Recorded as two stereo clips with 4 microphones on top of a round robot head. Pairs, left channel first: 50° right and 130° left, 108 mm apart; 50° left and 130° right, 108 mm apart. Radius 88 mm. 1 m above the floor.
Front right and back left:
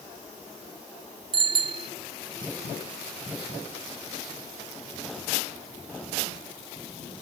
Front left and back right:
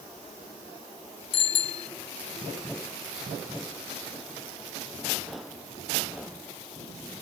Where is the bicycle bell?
85° left.